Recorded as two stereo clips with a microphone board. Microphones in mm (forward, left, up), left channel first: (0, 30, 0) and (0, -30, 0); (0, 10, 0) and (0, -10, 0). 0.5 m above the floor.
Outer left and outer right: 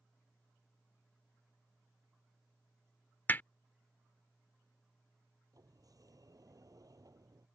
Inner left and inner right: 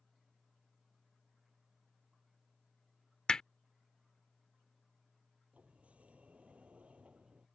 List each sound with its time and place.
3.3 s hammering: 35° left (ahead or behind)
5.5 s a sliding door: 75° right (ahead or behind)